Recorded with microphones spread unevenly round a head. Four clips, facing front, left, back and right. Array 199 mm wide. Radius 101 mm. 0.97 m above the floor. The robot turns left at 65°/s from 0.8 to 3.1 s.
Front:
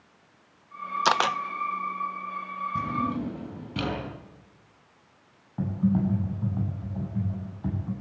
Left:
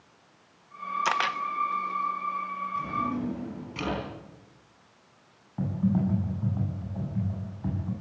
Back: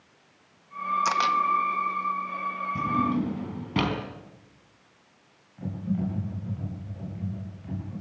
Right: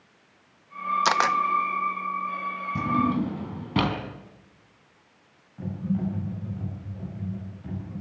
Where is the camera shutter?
25° right, 0.5 m; by 1.4 s 45° right, 0.5 m.